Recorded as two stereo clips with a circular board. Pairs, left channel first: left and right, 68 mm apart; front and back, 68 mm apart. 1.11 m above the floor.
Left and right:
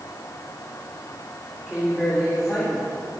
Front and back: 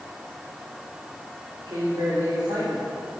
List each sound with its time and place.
1.7 s a woman speaking: 175° left, 4 m